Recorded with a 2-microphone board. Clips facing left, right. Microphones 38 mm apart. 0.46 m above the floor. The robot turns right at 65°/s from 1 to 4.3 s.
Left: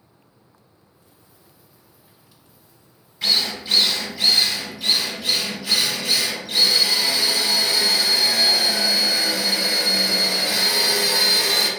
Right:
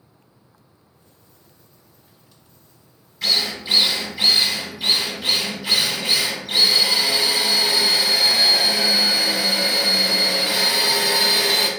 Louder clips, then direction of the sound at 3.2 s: Even; 170° left.